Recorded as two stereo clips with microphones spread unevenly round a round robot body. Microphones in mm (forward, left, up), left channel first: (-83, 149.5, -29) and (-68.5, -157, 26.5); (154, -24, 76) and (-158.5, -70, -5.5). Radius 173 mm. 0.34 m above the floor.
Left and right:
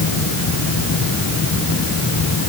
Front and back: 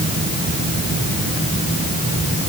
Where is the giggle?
No giggle in this recording.